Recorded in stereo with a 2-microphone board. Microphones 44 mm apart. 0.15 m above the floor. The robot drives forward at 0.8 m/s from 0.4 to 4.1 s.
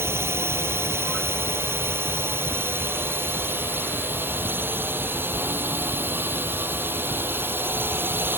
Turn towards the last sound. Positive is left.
turn(degrees=-55)  # may be behind; listen again after turning